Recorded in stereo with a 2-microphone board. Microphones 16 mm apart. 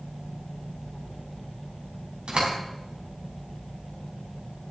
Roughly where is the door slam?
Right.